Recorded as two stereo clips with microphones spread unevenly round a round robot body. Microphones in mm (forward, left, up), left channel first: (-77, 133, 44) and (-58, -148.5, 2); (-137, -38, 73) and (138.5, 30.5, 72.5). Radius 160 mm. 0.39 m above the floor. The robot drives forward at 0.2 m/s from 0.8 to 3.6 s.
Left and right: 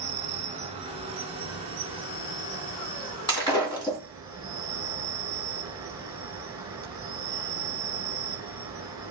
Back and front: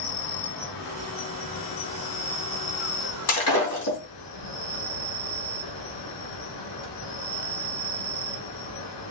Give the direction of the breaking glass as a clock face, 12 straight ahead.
6 o'clock.